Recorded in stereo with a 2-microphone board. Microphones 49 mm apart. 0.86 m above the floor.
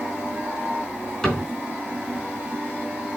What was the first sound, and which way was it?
A cupboard door, 15° left (ahead or behind).